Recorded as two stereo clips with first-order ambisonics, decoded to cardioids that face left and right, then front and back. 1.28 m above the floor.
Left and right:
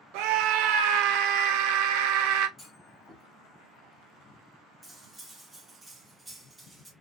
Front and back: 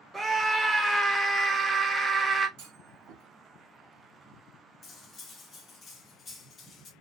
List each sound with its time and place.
0.1 s a scream: 100° right, 0.6 m
2.6 s a clunk: 170° left, 0.9 m
4.8 s cutlery clinking: 20° right, 0.5 m